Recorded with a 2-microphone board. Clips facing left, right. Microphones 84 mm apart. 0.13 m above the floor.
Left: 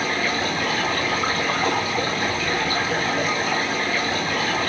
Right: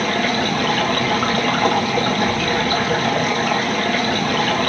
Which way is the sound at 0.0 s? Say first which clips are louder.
Right 4 dB; 60° right (ahead or behind).